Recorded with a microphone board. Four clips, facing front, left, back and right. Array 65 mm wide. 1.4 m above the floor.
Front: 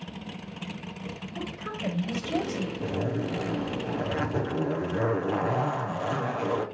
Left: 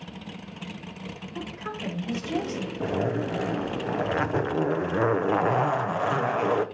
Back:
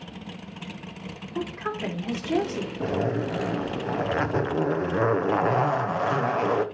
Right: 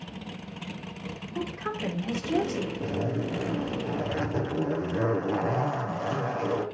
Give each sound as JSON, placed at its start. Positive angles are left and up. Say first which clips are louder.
{"t": 1.4, "sound": "a woman speaking", "louder": "right 3 dB, back 7 dB", "azimuth_deg": 180, "distance_m": 2.5}
{"t": 2.8, "sound": "a zipper", "louder": "left 7 dB, back 6 dB", "azimuth_deg": 130, "distance_m": 0.7}